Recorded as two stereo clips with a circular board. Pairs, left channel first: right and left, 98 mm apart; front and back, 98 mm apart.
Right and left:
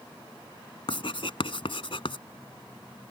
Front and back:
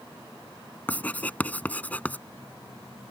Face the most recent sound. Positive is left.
turn(degrees=-75)